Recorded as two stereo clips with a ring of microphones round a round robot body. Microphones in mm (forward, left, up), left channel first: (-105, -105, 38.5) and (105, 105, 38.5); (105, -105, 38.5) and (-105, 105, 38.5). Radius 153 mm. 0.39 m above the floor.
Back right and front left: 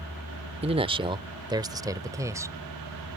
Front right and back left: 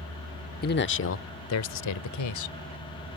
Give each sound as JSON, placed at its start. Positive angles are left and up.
{"t": 0.6, "sound": "a man speaking", "azimuth_deg": -10}